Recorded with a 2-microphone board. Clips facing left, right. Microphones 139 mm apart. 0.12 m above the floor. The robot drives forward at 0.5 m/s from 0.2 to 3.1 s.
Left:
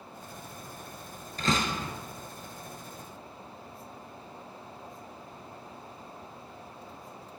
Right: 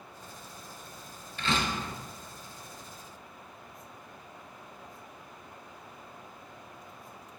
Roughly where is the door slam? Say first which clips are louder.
Left 2 dB; left.